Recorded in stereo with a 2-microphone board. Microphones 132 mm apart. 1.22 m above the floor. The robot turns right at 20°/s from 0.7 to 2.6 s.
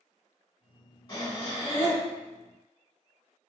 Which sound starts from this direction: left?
Breathing, at 1.1 s.